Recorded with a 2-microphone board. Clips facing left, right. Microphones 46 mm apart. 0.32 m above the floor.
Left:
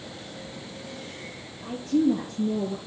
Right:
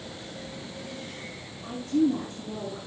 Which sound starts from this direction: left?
A woman speaking, at 1.6 s.